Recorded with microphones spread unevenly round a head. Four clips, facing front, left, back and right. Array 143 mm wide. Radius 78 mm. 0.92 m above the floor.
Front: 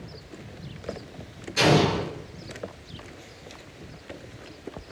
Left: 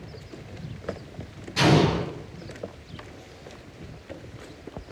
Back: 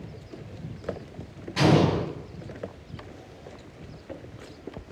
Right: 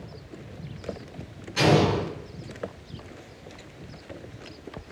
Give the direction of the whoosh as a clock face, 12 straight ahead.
I don't hear a whoosh.